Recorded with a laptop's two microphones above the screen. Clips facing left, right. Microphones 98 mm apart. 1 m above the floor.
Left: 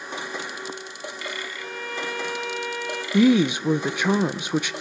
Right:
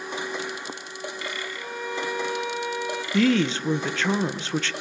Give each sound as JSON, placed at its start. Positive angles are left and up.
{"t": 1.6, "sound": "a violin", "side_deg": -15, "distance_m": 0.9}
{"t": 3.1, "sound": "a woman speaking", "side_deg": 15, "distance_m": 0.7}